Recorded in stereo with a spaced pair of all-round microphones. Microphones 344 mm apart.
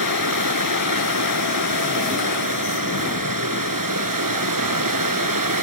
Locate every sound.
0.0 s running water: 75° right (ahead or behind)